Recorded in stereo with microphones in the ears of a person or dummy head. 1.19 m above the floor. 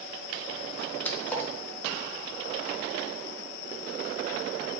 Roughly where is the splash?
Centre.